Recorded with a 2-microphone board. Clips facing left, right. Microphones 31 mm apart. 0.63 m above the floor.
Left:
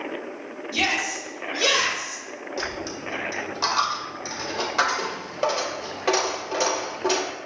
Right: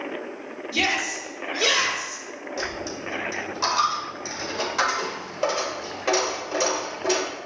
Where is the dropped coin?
10° left (ahead or behind), 1.0 m.